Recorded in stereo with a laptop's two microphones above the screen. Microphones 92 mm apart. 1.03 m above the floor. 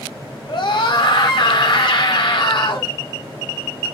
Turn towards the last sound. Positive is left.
turn(degrees=55)  # may be behind; listen again after turning